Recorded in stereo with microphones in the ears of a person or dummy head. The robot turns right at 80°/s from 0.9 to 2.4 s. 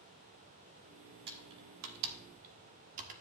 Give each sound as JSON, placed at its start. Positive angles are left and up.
{"t": 1.3, "sound": "typing on a keyboard", "side_deg": -50, "distance_m": 1.5}